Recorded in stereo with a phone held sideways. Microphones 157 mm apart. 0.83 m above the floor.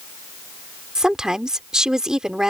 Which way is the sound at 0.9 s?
5° right (ahead or behind).